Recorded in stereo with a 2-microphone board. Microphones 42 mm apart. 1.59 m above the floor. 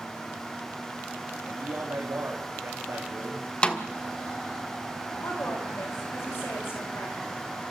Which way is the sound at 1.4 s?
65° right (ahead or behind).